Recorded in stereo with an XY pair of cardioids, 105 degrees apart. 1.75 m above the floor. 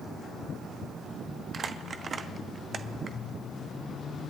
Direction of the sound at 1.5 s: 40° right.